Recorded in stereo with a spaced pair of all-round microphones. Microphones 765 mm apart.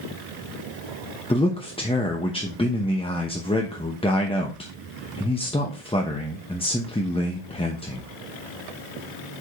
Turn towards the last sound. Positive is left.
turn(degrees=10)  # may be behind; listen again after turning